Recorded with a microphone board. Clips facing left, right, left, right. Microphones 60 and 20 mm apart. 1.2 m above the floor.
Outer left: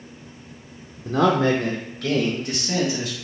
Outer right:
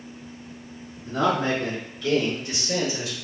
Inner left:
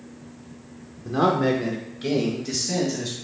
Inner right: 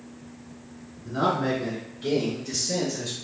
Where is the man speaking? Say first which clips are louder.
Outer left 4 dB, inner left 4 dB; 85° left, 0.6 m; by 3.1 s 50° left (ahead or behind), 2.0 m.